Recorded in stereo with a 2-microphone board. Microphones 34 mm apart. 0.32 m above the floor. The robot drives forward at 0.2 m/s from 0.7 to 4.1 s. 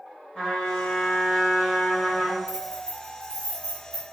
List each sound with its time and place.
0.3 s a trumpet: 30° left (ahead or behind), 1.8 m; by 2.4 s 35° left (ahead or behind), 1.5 m
2.5 s keys jangling: 20° right (ahead or behind), 0.9 m